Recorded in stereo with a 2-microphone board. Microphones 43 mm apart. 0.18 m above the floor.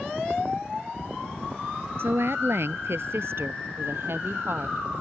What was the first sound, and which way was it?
A woman speaking, 65° right (ahead or behind).